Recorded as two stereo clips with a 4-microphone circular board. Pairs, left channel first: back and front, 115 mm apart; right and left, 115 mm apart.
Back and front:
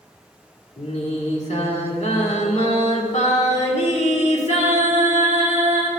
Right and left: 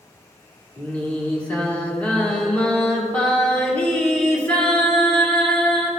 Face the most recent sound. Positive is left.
turn(degrees=-170)